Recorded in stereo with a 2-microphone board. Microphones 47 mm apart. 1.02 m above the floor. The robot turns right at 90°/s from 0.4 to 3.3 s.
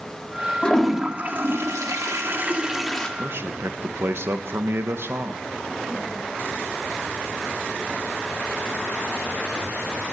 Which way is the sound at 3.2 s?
50° right (ahead or behind).